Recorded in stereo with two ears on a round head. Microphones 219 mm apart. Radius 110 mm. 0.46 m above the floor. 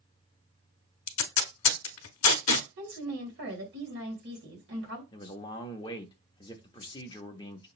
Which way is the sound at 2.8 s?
50° right (ahead or behind).